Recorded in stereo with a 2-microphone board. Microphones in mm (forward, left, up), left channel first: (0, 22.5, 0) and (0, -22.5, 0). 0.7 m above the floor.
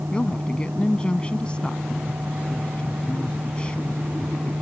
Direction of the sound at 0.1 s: 20° left (ahead or behind).